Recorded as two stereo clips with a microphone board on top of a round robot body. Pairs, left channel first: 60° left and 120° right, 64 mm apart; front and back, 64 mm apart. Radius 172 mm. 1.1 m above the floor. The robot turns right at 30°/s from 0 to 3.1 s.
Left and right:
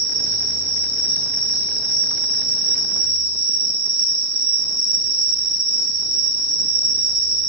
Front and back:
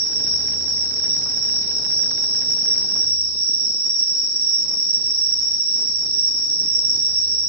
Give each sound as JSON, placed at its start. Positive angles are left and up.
{"t": 0.0, "sound": "an insect", "azimuth_deg": 5, "distance_m": 1.8}